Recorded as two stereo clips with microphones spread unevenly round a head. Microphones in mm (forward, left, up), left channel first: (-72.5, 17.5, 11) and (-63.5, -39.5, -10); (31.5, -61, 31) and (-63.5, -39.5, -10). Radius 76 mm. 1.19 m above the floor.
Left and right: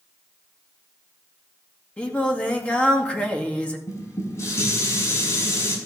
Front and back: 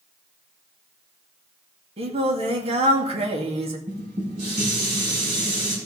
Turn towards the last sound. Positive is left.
turn(degrees=130)